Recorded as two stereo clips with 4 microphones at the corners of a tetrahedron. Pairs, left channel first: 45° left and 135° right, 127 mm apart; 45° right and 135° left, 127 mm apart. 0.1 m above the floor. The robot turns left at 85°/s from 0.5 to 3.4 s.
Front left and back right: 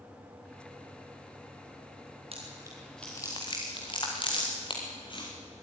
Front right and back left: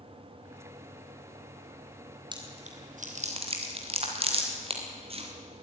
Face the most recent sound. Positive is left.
turn(degrees=95)